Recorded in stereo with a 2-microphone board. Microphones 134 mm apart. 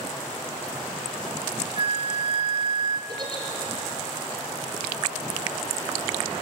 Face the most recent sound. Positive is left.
turn(degrees=-35)  # may be behind; listen again after turning